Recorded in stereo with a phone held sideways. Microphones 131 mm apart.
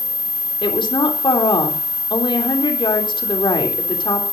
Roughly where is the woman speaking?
Left.